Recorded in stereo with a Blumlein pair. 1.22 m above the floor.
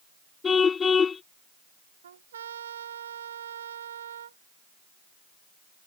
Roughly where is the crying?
I don't hear crying.